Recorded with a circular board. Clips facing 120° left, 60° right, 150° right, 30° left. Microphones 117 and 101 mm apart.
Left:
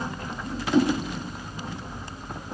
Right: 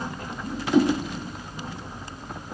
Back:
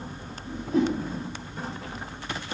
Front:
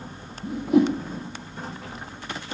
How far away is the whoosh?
About 1.9 m.